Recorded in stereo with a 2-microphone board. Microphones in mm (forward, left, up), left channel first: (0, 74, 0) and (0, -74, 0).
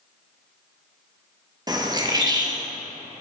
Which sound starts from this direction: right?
A bird, at 1.7 s.